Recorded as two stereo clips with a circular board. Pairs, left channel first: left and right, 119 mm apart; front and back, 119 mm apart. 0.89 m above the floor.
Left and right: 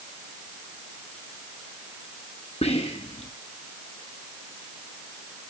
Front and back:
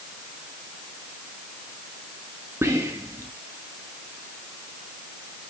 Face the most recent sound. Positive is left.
turn(degrees=115)